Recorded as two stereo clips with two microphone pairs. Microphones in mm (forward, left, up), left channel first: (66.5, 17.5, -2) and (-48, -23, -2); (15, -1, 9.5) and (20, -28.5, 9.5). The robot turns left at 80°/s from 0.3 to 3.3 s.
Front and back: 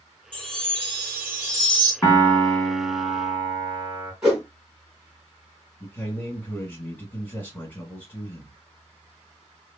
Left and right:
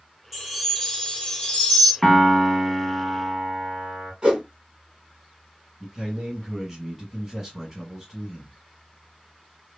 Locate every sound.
0.3 s a chime: 155° right, 2 m; by 1.9 s 75° left, 2 m
2.0 s a piano: 30° left, 1.1 m; by 4.1 s 75° right, 1.1 m
4.2 s a whoosh: 85° right, 1.9 m
5.8 s a man speaking: 30° right, 1.3 m